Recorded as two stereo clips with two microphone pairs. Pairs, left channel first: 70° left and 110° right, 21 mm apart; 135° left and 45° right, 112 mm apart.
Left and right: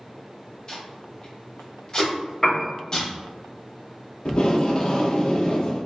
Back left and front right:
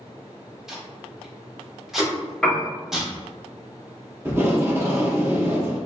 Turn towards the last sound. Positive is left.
turn(degrees=25)